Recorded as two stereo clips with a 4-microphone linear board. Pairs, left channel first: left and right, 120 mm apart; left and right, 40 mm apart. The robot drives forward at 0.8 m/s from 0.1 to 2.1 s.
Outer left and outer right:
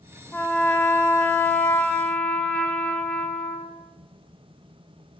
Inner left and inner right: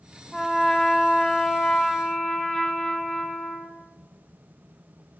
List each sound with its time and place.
0.3 s a trumpet: 15° left (ahead or behind), 0.9 m; by 3.8 s 10° left (ahead or behind), 1.3 m